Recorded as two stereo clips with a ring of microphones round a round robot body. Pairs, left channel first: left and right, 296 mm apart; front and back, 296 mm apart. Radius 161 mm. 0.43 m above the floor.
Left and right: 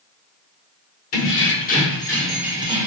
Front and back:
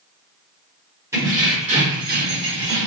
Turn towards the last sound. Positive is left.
turn(degrees=-150)